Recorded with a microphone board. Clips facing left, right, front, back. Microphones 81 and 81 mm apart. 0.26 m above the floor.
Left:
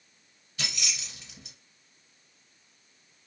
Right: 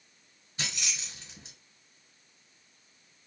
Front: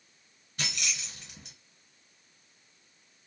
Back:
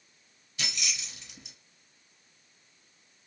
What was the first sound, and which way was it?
Keys jangling, 35° right.